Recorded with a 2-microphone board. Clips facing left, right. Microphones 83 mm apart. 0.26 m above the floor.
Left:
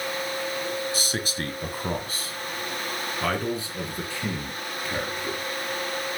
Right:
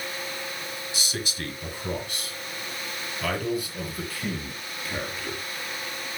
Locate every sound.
0.9 s a man speaking: 45° left (ahead or behind), 1.5 m; by 5.4 s 20° left (ahead or behind), 4 m